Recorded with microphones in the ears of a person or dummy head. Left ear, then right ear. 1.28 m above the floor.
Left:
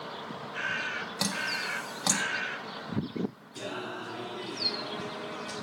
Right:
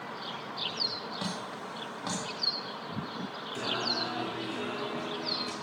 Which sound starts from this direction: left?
Dripping, at 1.2 s.